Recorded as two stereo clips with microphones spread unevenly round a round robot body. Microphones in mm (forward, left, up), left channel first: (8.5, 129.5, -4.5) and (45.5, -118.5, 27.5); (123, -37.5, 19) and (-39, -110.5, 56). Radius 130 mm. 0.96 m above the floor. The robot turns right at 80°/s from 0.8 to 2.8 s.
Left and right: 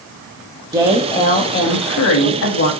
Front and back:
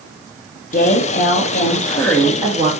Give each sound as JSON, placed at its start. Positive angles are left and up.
{"t": 0.7, "sound": "a woman speaking", "azimuth_deg": 0, "distance_m": 1.7}